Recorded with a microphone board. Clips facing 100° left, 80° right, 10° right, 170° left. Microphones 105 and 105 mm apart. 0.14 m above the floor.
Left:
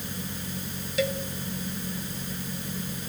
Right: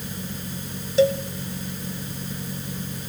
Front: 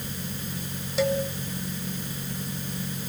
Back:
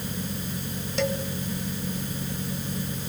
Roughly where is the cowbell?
Right.